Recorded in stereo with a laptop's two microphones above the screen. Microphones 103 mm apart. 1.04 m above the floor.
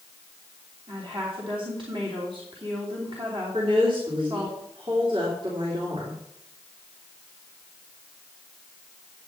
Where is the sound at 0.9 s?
55° right (ahead or behind), 3 m.